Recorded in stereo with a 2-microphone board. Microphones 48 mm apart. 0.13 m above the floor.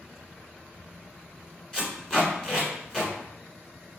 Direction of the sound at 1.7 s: 15° left (ahead or behind).